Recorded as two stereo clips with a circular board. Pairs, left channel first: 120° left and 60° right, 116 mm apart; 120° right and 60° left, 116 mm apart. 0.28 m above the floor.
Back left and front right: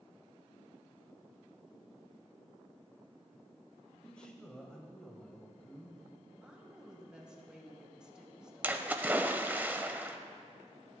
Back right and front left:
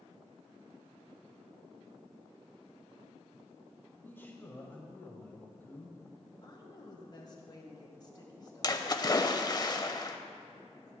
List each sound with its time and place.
3.9 s a man speaking: 170° right, 1.3 m
6.4 s a woman speaking: 140° right, 1.7 m
8.6 s a splash: 125° right, 0.6 m